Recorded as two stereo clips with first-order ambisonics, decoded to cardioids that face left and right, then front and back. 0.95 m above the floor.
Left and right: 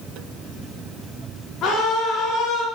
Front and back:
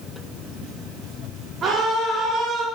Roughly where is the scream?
Behind left.